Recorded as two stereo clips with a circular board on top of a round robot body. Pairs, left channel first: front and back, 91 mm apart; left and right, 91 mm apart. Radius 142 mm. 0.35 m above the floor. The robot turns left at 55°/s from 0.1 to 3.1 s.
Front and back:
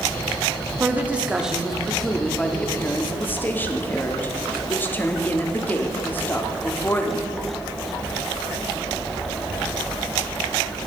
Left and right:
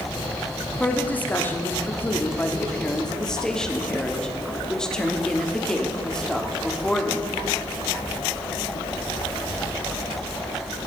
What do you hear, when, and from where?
0.8 s a woman speaking: 145° left, 1.4 m; by 7.3 s 20° left, 1.4 m